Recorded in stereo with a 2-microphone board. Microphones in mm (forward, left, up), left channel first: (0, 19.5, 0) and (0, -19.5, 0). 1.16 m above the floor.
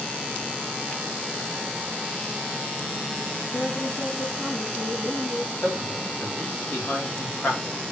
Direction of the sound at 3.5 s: 50° left (ahead or behind).